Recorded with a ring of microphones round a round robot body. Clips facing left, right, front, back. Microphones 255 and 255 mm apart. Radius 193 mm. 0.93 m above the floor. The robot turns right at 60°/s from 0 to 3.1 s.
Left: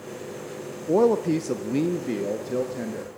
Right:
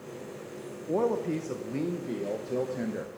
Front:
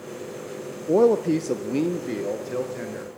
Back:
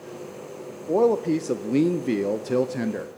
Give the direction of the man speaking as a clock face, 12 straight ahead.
10 o'clock.